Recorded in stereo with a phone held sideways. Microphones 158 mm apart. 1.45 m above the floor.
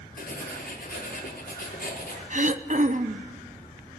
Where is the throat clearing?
50° right (ahead or behind), 0.8 m.